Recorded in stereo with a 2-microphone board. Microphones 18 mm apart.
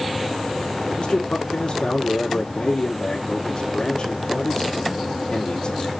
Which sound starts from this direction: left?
A man speaking, at 1.0 s.